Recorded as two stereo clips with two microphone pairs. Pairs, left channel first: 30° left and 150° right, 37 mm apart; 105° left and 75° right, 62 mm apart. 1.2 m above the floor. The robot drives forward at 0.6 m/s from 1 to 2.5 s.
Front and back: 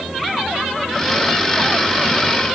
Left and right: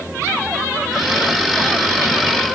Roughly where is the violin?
No violin in this recording.